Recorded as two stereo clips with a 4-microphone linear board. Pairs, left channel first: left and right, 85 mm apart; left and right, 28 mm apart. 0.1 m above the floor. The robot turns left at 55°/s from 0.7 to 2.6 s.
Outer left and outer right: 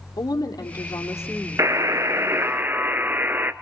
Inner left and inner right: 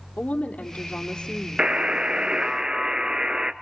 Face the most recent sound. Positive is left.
turn(degrees=-135)